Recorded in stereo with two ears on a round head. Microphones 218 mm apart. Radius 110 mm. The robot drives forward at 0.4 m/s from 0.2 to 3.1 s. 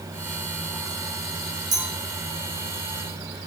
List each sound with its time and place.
1.7 s a clink: 15° right (ahead or behind), 2.5 m